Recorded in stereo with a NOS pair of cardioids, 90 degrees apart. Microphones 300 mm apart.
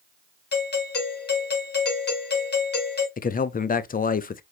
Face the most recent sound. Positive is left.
turn(degrees=30)